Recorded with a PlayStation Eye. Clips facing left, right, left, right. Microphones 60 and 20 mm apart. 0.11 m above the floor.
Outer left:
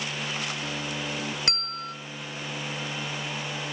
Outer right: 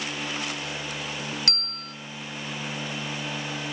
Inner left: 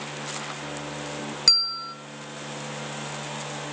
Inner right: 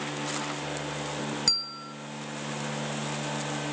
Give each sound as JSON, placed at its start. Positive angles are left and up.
{"t": 1.5, "sound": "a bell", "side_deg": 25, "distance_m": 1.1}